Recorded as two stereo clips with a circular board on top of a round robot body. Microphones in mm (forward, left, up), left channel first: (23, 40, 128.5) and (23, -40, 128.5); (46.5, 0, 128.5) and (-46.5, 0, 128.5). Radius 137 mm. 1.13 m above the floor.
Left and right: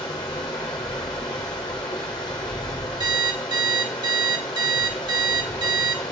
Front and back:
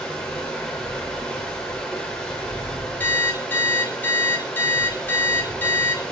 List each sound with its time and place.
0.0 s running water: 75° left, 0.9 m
3.0 s an alarm clock: 70° right, 1.9 m